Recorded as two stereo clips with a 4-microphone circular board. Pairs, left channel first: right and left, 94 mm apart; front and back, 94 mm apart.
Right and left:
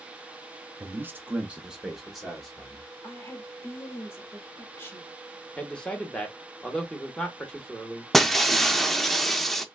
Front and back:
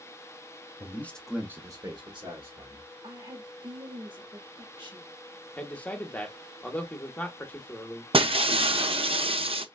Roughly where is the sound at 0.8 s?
Ahead left.